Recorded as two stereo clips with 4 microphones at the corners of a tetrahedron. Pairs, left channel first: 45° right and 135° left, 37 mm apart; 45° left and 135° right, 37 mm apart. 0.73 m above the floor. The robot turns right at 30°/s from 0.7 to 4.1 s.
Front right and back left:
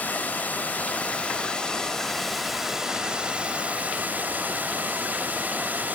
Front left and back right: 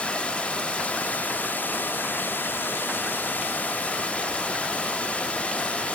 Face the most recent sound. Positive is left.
turn(degrees=100)